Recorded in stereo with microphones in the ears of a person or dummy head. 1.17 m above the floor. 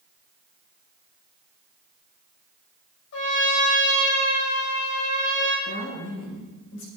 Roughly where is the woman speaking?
Left.